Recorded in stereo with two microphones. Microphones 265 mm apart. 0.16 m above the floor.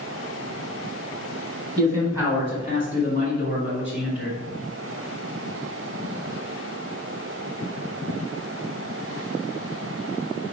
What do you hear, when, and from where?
1.8 s a man speaking: 5° left (ahead or behind), 1.9 m; by 4.4 s 50° left (ahead or behind), 3 m